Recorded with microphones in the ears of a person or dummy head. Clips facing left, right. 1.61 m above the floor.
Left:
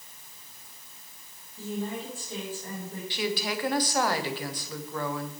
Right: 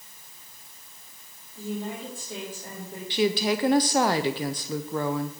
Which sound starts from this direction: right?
A woman speaking, at 3.1 s.